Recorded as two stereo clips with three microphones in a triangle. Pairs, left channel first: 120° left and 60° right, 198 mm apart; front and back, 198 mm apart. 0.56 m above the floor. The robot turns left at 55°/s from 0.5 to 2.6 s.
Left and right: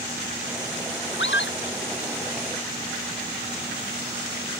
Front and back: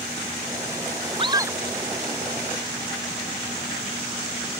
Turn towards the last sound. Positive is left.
turn(degrees=40)